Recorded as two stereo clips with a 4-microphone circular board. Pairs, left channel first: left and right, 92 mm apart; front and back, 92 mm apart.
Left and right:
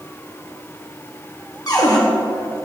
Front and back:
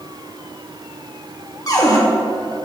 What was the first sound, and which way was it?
A cupboard door, 50° left.